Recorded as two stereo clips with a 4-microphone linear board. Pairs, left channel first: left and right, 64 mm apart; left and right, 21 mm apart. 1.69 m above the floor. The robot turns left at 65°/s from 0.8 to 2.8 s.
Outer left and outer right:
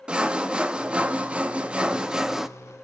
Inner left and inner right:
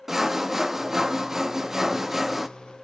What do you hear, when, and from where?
0.1 s sawing: 15° right (ahead or behind), 1.1 m; by 2.5 s 5° right (ahead or behind), 1.1 m